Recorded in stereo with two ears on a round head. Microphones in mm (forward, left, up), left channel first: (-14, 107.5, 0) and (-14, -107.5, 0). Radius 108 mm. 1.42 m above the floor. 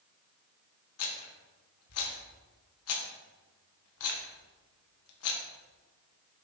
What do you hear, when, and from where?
1.0 s a rattle: 65° left (ahead or behind), 1.6 m